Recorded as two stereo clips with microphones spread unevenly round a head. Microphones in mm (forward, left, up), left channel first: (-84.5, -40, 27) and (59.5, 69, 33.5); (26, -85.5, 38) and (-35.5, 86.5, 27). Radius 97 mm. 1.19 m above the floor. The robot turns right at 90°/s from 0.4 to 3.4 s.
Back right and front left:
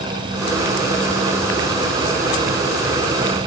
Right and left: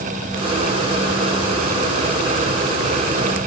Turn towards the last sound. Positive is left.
No sound to turn to.